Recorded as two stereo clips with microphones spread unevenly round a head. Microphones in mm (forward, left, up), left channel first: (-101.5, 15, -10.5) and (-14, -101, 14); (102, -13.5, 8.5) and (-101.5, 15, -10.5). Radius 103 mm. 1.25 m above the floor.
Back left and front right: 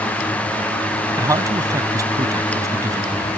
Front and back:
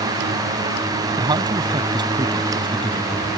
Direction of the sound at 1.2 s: 120° right.